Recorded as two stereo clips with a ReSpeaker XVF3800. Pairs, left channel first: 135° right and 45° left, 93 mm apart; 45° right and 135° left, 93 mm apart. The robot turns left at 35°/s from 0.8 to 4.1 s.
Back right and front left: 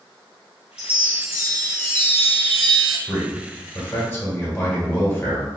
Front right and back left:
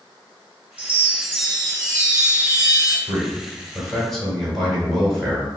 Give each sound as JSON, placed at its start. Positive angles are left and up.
{"t": 0.8, "sound": "a chime", "azimuth_deg": 125, "distance_m": 1.8}
{"t": 3.1, "sound": "a man speaking", "azimuth_deg": -90, "distance_m": 1.3}